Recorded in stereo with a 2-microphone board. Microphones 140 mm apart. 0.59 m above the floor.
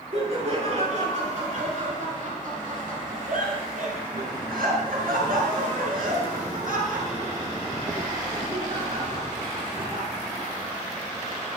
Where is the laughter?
50° right (ahead or behind), 7.5 m; by 10.1 s 60° right (ahead or behind), 9 m.